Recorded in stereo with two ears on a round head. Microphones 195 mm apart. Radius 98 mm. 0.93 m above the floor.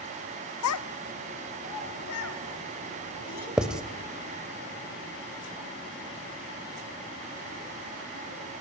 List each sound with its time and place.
0.6 s a child speaking: 75° left (ahead or behind), 0.6 m; by 3.5 s 90° left, 4.5 m
3.6 s writing: 5° right (ahead or behind), 0.9 m